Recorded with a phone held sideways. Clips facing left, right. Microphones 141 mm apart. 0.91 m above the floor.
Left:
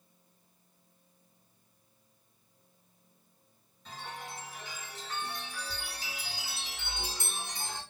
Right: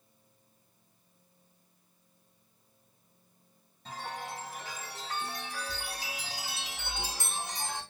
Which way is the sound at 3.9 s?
65° right (ahead or behind).